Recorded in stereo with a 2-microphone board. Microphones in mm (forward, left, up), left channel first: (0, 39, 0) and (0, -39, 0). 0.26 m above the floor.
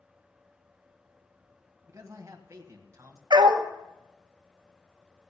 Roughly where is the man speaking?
Right.